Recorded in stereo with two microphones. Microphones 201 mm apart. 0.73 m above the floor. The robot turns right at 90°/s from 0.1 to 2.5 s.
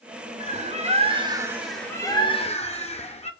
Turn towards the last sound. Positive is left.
turn(degrees=70)